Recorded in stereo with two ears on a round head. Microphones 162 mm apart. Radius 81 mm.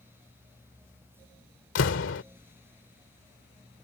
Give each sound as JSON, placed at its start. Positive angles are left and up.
{"t": 1.8, "sound": "a door slam", "side_deg": 80}